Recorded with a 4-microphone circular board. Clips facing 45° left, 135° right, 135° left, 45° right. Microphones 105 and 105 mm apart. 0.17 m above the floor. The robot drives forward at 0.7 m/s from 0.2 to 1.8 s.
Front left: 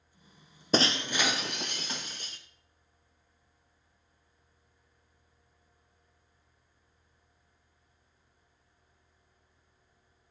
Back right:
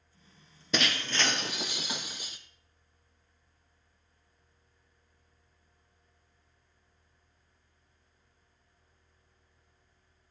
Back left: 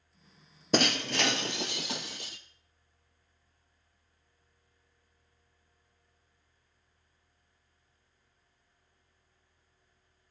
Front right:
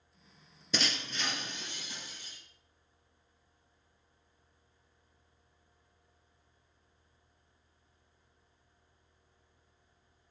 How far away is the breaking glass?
About 0.6 m.